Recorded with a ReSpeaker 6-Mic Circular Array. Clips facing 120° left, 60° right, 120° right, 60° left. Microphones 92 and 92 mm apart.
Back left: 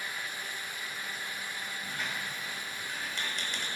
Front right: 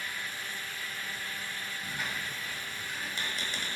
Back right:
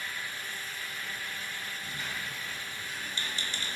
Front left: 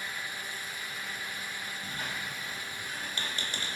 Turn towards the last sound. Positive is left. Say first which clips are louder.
# front right 1 dB, front left 2 dB
turn(degrees=25)